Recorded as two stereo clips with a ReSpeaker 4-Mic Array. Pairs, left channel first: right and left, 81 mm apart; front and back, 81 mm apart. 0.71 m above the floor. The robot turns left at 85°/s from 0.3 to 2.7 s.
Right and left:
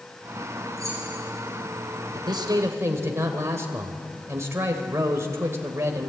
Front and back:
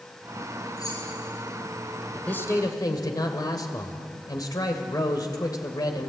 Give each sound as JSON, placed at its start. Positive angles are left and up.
{"t": 0.8, "sound": "keys jangling", "azimuth_deg": 45, "distance_m": 10.0}
{"t": 2.1, "sound": "a man speaking", "azimuth_deg": 80, "distance_m": 2.5}